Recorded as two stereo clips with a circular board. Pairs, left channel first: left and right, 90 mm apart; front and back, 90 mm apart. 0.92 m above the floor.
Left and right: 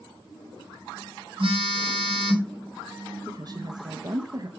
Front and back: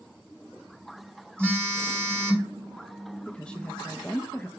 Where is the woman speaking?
75° right, 0.6 m.